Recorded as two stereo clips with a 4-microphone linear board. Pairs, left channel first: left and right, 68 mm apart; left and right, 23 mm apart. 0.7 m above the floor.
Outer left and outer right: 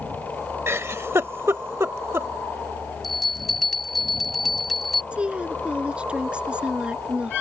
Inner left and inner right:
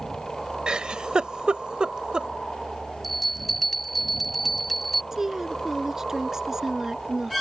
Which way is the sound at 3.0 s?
Centre (ahead or behind).